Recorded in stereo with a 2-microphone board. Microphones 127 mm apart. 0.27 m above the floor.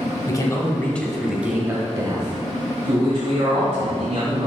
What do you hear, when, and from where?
0.3 s a man speaking: 30° left (ahead or behind), 1.3 m; by 4.5 s 65° right (ahead or behind), 2.5 m